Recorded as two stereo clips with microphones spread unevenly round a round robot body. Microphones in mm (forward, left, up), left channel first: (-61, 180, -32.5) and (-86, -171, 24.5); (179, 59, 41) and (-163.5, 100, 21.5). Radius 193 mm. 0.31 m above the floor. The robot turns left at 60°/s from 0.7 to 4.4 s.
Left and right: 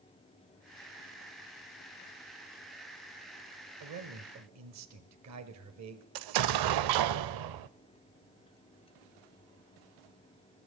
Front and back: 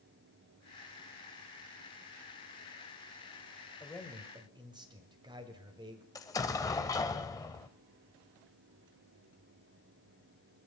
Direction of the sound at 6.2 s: 90° right.